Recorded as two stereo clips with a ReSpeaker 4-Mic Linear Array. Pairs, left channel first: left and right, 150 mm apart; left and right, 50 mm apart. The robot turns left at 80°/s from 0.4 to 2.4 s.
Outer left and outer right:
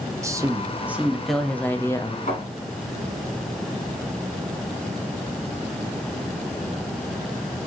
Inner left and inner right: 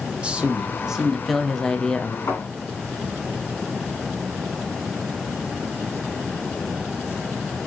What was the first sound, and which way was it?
A man speaking, 20° right (ahead or behind).